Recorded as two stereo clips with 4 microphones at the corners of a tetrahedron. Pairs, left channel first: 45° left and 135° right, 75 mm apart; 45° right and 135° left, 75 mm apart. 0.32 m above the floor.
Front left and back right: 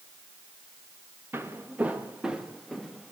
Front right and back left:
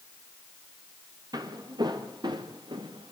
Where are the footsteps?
165° left, 3.5 m; by 3.1 s 130° left, 3.5 m.